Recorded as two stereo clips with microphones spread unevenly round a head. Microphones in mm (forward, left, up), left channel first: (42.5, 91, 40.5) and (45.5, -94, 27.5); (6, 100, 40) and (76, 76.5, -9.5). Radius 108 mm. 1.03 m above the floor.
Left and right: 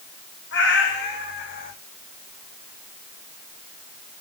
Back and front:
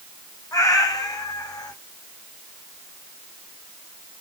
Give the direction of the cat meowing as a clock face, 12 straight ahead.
8 o'clock.